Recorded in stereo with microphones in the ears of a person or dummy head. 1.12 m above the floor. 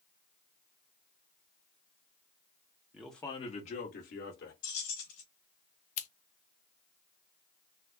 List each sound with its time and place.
2.9 s a man speaking: 5° right (ahead or behind), 0.8 m; by 4.5 s 65° left (ahead or behind), 1.7 m
4.6 s keys jangling: 85° left, 1.8 m
6.0 s scissors: 40° left (ahead or behind), 0.6 m